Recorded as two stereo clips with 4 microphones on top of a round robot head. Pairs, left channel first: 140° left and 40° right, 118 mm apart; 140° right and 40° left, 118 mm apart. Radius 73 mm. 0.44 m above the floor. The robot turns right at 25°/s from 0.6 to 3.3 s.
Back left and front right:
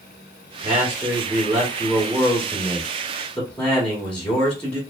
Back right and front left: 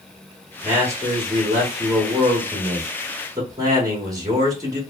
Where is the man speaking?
5° right, 1.4 m; by 4.8 s 65° left, 1.4 m.